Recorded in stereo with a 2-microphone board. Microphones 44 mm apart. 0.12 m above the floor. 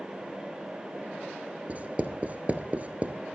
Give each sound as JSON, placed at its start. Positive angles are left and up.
{"t": 1.7, "sound": "writing", "side_deg": -35, "distance_m": 0.9}